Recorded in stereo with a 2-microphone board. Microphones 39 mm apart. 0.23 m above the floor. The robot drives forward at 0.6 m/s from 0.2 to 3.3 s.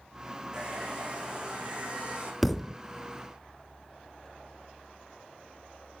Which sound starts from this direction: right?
A hair dryer, at 0.5 s.